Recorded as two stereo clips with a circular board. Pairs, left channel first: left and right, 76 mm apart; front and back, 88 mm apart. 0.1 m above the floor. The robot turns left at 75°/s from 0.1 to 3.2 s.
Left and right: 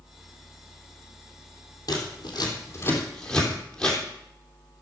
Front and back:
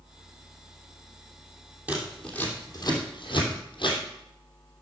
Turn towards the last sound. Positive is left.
turn(degrees=15)